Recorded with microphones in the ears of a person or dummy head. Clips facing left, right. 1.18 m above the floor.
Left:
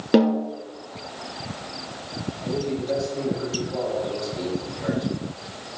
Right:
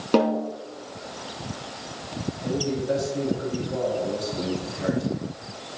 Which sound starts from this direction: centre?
A snare drum, at 0.1 s.